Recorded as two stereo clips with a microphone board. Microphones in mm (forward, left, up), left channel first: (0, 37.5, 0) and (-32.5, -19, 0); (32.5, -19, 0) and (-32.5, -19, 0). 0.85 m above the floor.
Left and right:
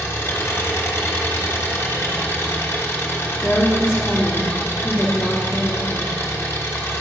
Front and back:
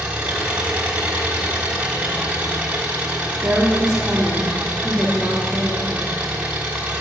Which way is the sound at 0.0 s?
110° left.